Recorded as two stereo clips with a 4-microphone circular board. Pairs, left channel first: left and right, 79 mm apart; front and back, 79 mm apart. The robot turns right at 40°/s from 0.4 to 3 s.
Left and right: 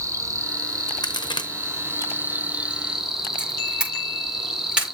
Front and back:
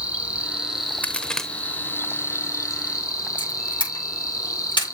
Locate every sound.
0.0 s an insect: 110° right, 1.1 m; by 4.9 s 10° right, 1.1 m
1.0 s a crack: 70° left, 0.9 m; by 1.5 s 85° left, 0.9 m
3.4 s a camera shutter: 10° right, 5.5 m